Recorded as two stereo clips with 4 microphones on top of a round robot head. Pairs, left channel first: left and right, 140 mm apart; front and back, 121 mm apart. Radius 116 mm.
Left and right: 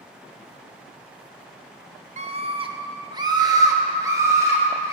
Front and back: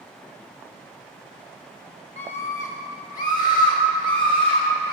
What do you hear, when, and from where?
2.2 s a scream: 55° right, 0.7 m; by 4.9 s 20° right, 2.5 m